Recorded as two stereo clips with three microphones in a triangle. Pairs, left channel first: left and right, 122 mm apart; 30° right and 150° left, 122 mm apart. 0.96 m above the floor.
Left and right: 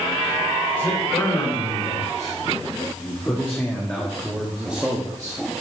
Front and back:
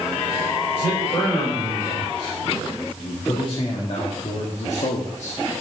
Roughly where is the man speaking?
Ahead left.